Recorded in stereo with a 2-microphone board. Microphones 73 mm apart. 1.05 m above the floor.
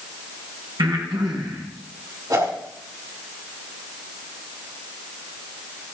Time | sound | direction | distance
0.8 | breathing | 80° right | 4 m
2.3 | a whoosh | 60° right (ahead or behind) | 4.5 m